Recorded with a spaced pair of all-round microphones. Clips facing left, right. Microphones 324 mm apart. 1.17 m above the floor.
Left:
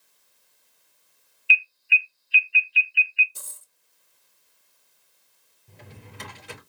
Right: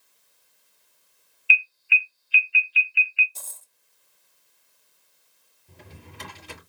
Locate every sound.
1.5 s an alarm: 5° right (ahead or behind), 0.7 m
3.4 s a dropped coin: 20° left (ahead or behind), 0.5 m
5.7 s a drawer: 60° left (ahead or behind), 3.5 m